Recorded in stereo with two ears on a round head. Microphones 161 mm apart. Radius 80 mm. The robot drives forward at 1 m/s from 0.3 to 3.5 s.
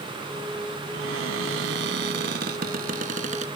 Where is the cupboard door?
80° right; by 3.5 s 40° right (ahead or behind).